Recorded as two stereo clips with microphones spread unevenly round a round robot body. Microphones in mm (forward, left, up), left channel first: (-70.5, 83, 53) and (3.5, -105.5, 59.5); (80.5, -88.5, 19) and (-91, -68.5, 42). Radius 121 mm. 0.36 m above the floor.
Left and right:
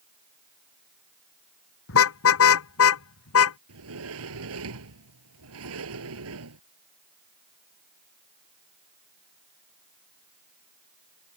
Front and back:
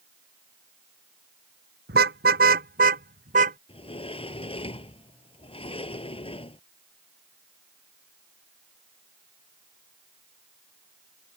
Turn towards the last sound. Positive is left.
turn(degrees=-65)